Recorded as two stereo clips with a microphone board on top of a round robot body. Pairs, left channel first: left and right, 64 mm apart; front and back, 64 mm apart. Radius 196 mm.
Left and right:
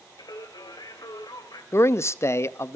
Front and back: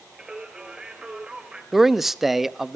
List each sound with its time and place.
0.2 s singing: 105° left, 3 m
1.7 s a man speaking: 95° left, 1.0 m